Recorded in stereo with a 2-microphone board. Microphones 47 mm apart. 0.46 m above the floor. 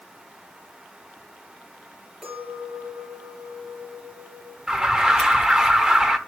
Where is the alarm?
15° right (ahead or behind), 0.9 m.